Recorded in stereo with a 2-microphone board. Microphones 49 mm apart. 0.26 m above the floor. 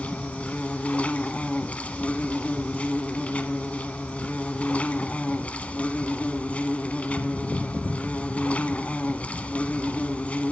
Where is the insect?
30° left (ahead or behind), 0.8 m.